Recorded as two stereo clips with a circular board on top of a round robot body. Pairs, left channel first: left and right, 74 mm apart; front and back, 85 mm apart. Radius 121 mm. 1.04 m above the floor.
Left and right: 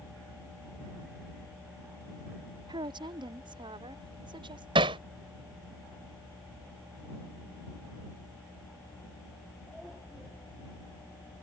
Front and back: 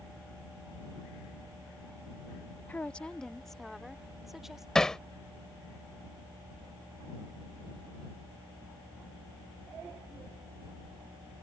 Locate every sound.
2.7 s a woman speaking: 75° right; by 4.7 s 95° right
4.8 s hammering: 85° right